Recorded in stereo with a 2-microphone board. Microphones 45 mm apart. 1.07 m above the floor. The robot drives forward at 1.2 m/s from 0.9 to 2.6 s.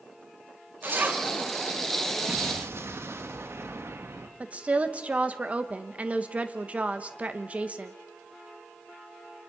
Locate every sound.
0.8 s a zipper: 50° right (ahead or behind), 1.6 m; by 1.2 s 40° right (ahead or behind), 1.9 m
2.3 s an explosion: 80° right, 1.4 m; by 4.3 s 70° right (ahead or behind), 1.4 m
4.4 s a woman speaking: 30° right (ahead or behind), 1.3 m